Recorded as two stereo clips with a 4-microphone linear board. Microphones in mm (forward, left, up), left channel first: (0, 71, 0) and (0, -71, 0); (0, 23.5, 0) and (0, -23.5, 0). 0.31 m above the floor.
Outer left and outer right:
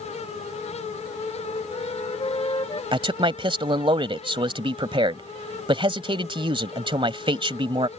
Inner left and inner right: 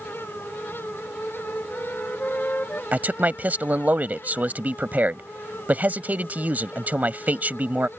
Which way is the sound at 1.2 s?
35° left (ahead or behind).